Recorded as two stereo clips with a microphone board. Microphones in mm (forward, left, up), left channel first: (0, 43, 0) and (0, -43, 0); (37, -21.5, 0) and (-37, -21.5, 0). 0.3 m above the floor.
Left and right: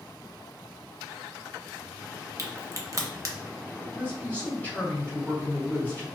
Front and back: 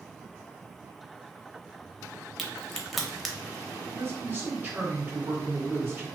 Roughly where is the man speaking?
Behind left.